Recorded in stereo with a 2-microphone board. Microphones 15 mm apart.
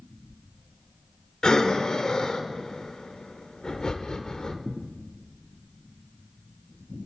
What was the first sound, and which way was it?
Breathing, 50° left (ahead or behind).